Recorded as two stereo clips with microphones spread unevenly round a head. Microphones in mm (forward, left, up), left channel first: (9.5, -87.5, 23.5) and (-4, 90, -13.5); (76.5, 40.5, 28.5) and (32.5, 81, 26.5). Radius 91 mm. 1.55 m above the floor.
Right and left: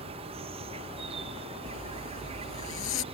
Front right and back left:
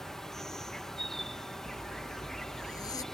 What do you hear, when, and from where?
0.0 s an insect: 40° left
1.7 s a zipper: 85° right